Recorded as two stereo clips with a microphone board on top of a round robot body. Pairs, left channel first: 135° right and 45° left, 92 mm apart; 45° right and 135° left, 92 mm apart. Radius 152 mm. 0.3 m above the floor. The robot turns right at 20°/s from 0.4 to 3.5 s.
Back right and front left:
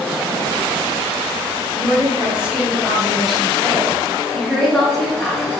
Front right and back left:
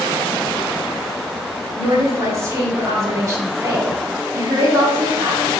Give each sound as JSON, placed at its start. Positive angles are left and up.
{"t": 1.8, "sound": "a woman speaking", "azimuth_deg": 100, "distance_m": 1.4}